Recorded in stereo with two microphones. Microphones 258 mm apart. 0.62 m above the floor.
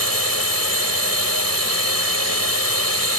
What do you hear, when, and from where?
0.0 s a drone: 70° right (ahead or behind)